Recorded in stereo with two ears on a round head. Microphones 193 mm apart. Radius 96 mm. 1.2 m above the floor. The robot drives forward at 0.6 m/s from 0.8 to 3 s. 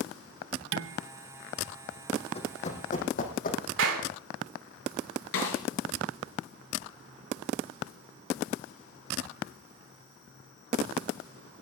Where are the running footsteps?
30° left (ahead or behind), 3 m; by 3.6 s 40° left (ahead or behind), 3.5 m.